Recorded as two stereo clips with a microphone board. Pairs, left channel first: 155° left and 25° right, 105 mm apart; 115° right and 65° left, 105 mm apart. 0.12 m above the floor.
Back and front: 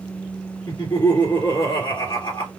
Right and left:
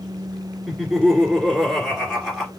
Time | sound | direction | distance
0.7 | laughter | 160° left | 1.9 m